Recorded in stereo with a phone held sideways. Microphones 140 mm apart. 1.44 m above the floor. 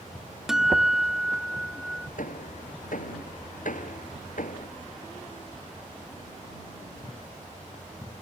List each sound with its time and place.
0.5 s a guitar: 5° right (ahead or behind)
2.2 s hammering: 70° left (ahead or behind)